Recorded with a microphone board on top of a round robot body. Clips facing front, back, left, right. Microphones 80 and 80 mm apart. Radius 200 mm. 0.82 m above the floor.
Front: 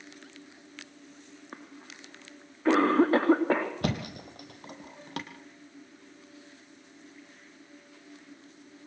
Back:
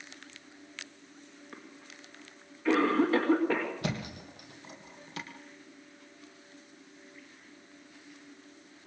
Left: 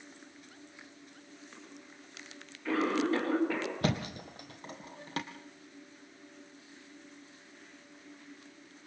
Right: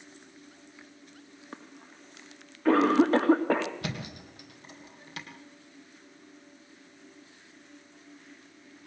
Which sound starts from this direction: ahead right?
A cough, at 1.5 s.